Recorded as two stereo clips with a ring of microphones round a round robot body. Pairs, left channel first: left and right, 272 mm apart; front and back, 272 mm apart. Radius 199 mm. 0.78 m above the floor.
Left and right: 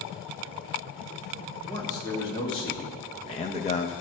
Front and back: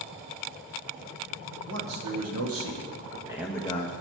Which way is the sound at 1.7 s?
170° left.